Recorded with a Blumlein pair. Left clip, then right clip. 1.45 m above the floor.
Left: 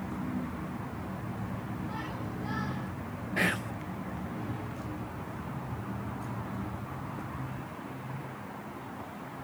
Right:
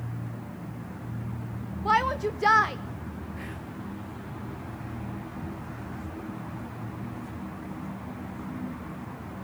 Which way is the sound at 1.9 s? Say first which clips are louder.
Right 19 dB; 50° right.